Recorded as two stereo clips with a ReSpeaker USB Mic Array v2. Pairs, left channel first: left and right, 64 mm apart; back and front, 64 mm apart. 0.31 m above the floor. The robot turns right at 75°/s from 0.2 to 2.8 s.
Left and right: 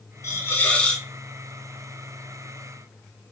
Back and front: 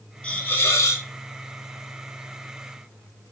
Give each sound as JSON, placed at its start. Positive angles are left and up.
{"t": 0.2, "sound": "a hiss", "azimuth_deg": 115, "distance_m": 0.5}